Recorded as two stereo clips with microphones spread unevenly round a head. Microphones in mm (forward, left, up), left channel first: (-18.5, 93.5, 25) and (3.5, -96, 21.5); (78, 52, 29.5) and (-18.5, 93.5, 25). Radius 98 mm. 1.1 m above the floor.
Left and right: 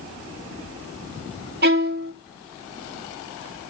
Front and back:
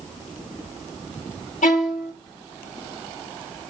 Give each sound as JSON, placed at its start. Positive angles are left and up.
{"t": 1.6, "sound": "a violin", "azimuth_deg": -40, "distance_m": 1.6}